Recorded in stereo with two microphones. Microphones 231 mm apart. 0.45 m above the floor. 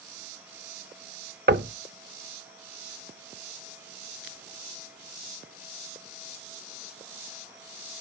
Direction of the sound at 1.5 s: 50° right (ahead or behind).